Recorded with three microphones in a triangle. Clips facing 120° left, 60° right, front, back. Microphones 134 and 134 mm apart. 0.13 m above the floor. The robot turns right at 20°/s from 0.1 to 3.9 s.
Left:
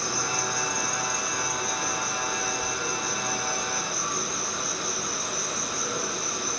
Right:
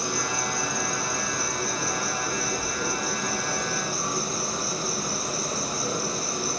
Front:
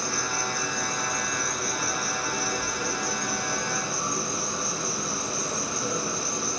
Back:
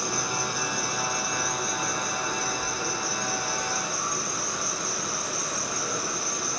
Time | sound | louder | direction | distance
0.0 | an insect | right 1 dB, back 1 dB | 120° right | 1.2 m